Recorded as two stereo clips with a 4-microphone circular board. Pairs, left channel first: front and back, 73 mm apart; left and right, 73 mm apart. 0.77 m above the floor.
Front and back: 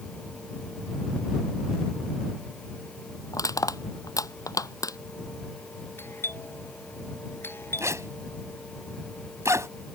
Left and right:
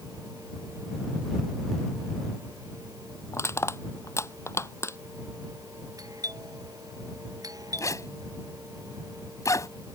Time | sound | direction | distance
3.3 | crushing | 40° left | ?
6.0 | a doorbell | 55° right | ?
7.8 | a zipper | 135° left | ?